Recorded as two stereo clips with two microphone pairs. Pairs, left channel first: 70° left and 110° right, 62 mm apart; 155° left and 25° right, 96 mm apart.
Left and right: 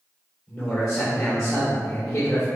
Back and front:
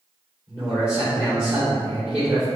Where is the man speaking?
45° left, 2.0 m.